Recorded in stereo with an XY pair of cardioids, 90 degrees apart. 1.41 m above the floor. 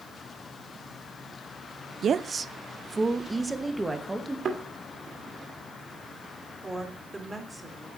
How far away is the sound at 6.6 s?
About 3.5 m.